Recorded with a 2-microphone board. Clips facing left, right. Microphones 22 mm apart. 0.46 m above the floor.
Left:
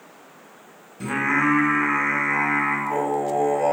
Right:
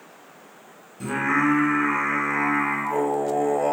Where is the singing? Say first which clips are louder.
Left 1 dB; 20° left (ahead or behind), 0.7 m.